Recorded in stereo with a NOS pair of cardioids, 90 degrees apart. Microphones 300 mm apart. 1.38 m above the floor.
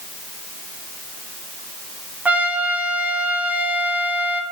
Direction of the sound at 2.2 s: 5° right.